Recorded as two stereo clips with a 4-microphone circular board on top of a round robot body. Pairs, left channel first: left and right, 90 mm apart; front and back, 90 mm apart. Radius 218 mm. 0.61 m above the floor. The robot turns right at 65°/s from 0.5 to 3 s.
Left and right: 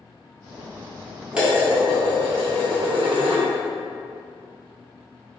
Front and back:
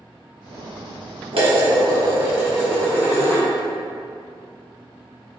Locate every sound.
1.3 s dishes clattering: 170° right, 1.4 m; by 3.5 s 60° right, 1.4 m